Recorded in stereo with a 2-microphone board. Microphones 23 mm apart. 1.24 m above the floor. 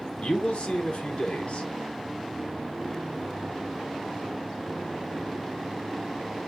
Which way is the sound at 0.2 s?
60° left (ahead or behind).